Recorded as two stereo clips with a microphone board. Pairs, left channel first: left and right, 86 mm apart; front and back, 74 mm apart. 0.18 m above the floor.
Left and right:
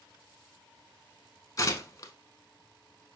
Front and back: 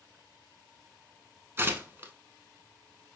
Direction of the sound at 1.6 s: 130° left.